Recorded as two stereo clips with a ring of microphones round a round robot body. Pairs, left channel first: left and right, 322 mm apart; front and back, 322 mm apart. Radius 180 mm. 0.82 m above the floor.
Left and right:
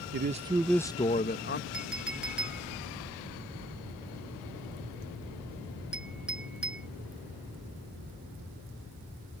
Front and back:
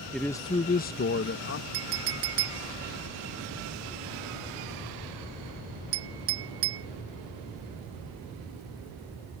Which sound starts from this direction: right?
A man speaking, at 0.1 s.